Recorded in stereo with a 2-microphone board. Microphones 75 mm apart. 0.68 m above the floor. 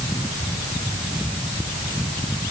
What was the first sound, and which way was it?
Only background noise.